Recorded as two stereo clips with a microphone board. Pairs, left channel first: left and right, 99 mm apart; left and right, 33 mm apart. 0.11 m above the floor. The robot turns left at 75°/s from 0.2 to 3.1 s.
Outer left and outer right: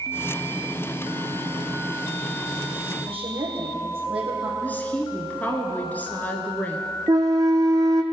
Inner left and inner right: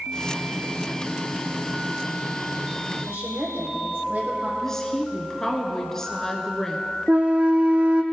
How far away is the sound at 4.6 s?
About 1.4 m.